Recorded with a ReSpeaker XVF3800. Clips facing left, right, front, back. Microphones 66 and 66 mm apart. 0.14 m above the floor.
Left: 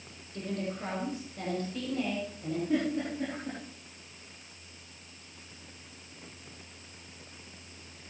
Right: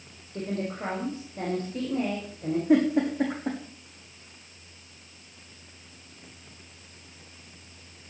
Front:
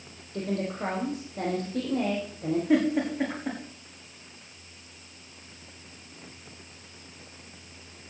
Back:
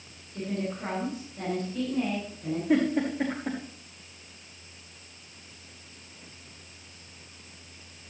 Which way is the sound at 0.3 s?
35° right.